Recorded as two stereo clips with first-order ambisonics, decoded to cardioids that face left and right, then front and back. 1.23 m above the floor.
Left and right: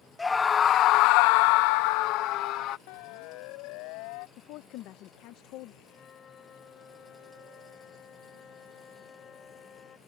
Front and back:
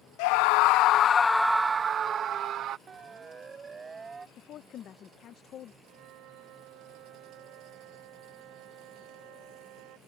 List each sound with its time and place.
0.2 s a scream: 10° left; by 2.8 s 130° left
2.9 s a siren: 110° left; by 4.3 s 105° left
4.4 s a woman speaking: 55° left
5.8 s a flute: 150° left